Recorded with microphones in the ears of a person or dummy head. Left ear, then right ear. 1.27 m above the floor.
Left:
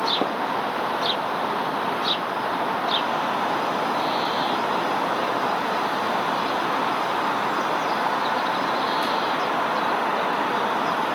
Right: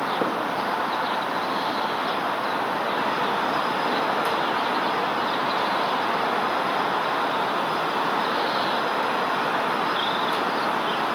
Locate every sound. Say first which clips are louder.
0.2 s tapping: even; 55° left (ahead or behind), 2.5 m